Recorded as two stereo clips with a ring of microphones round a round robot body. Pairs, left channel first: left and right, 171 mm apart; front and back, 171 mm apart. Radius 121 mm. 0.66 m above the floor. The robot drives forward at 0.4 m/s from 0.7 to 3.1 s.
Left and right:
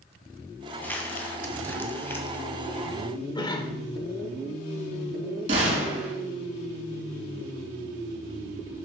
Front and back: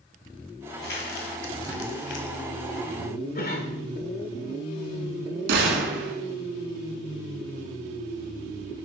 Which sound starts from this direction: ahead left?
A cough, at 3.4 s.